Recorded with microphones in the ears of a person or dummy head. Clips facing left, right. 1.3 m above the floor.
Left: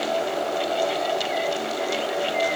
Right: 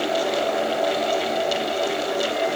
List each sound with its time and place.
Only background noise.